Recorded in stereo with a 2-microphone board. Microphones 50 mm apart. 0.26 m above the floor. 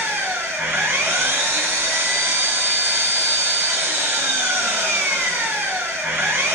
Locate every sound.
0.0 s an engine running: 65° right (ahead or behind), 1.8 m